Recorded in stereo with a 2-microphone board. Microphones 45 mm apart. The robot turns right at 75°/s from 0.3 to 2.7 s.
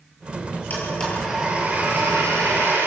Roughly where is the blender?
Behind left.